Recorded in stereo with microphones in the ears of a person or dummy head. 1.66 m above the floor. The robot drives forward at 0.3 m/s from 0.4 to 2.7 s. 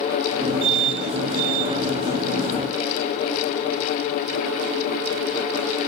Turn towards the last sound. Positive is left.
No sound to turn to.